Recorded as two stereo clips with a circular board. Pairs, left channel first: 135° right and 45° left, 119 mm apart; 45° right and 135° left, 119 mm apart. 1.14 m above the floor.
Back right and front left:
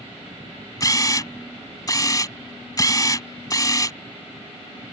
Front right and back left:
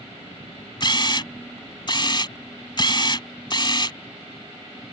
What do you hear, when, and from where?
0.8 s a camera shutter: 85° right